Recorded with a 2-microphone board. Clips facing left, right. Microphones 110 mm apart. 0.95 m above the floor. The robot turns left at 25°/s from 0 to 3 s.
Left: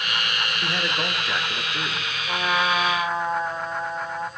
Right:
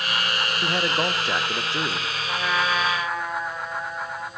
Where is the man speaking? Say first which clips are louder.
Right 4 dB; 50° right, 0.8 m; by 2.1 s 85° right, 0.8 m.